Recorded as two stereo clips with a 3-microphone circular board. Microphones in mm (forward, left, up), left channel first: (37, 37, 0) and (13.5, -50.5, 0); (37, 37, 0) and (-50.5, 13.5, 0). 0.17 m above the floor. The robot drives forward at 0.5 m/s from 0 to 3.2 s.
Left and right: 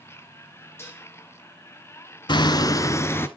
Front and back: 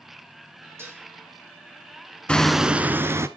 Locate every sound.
0.8 s dishes clattering: 135° left, 2 m; by 1.1 s 140° left, 2.5 m
2.3 s hammering: 95° left, 0.5 m; by 3.3 s 135° left, 0.7 m